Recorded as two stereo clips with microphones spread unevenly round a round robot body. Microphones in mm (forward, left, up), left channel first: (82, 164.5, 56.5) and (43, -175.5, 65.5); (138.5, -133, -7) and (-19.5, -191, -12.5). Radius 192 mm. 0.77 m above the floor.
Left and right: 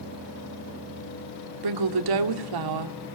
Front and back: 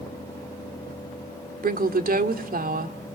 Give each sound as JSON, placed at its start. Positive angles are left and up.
{"t": 1.6, "sound": "a woman speaking", "azimuth_deg": -125, "distance_m": 2.0}